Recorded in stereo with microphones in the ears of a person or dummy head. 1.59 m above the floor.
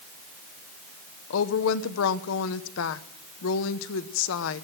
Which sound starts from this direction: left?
A woman speaking, at 1.3 s.